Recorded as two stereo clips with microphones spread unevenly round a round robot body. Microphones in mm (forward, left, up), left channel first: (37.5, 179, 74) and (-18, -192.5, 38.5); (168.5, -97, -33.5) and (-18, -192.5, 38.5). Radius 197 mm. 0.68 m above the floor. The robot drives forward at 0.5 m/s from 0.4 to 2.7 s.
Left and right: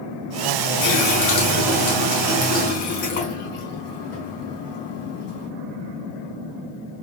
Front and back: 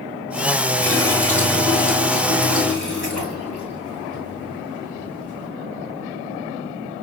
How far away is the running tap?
About 4.5 m.